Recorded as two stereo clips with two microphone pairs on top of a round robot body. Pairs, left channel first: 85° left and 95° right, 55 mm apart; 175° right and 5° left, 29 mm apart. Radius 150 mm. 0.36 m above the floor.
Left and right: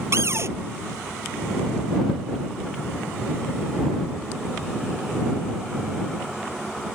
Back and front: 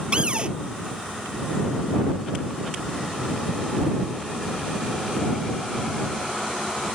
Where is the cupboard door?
60° right.